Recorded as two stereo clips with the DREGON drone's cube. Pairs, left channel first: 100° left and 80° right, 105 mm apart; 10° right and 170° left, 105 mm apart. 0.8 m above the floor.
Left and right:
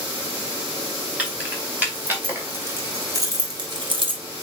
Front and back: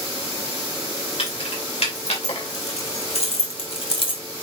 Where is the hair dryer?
No hair dryer in this recording.